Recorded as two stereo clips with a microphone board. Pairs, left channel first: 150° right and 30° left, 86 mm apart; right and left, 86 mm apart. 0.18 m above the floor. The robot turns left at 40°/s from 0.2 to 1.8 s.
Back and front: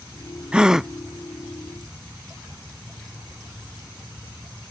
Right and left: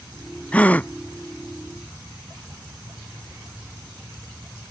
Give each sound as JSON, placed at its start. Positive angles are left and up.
{"t": 0.5, "sound": "a gasp", "azimuth_deg": -35}